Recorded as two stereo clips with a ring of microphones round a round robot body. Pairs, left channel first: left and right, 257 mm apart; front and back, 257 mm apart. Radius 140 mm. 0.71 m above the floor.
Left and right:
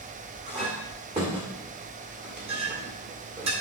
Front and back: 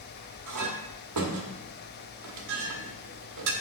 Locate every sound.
0.5 s a clink: 160° right, 1.6 m